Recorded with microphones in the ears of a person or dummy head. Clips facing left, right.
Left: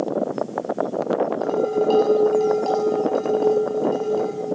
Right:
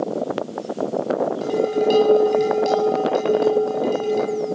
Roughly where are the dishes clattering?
Centre.